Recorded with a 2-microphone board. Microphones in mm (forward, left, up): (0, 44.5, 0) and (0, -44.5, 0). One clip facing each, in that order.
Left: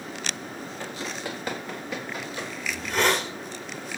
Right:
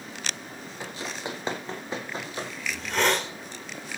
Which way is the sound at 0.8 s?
15° right (ahead or behind).